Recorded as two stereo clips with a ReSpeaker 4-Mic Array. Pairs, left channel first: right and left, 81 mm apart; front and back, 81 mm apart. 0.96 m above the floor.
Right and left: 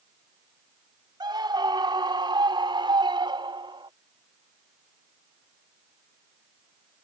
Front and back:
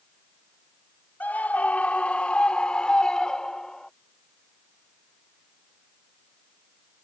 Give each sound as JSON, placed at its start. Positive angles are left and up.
{"t": 1.2, "sound": "a scream", "azimuth_deg": 70}